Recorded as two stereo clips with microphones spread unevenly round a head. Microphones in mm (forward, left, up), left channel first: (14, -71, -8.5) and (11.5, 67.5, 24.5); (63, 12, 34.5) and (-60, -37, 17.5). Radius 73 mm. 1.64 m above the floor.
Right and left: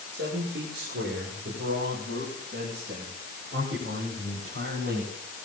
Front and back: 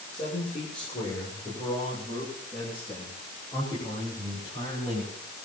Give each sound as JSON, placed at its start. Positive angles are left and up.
{"t": 0.1, "sound": "a man speaking", "azimuth_deg": 75, "distance_m": 7.0}